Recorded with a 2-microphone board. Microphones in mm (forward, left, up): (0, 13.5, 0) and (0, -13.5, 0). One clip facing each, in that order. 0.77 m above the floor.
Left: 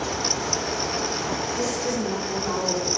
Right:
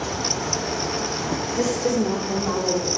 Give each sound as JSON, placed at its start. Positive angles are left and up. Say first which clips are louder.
{"t": 1.6, "sound": "a woman speaking", "louder": "right 4 dB", "side_deg": -35, "distance_m": 1.7}